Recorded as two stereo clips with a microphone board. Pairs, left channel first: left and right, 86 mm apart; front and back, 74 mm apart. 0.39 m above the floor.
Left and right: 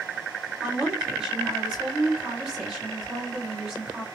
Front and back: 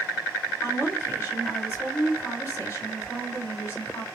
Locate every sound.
0.6 s a woman speaking: 20° right, 1.7 m